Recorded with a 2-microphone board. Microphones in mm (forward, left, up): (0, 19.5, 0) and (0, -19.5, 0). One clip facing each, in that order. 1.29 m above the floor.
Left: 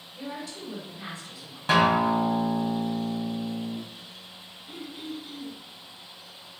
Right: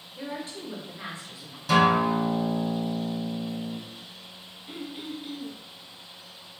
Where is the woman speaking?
35° right (ahead or behind), 2.5 m.